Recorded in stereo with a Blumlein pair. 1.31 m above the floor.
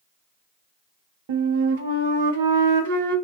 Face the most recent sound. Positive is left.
turn(degrees=-50)